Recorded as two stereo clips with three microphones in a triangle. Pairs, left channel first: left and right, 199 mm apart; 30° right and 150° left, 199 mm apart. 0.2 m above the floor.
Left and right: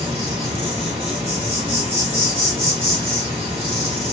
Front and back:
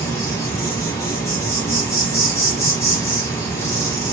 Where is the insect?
90° right, 1.2 m.